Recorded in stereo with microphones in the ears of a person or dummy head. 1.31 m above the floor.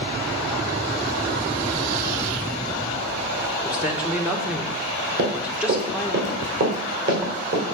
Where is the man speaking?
10° right (ahead or behind), 1.5 m.